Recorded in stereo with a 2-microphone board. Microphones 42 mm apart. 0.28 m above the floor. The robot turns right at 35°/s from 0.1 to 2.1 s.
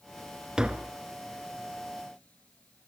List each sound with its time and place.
0.6 s tapping: 20° right (ahead or behind), 1.1 m; by 1.0 s 30° right (ahead or behind), 1.1 m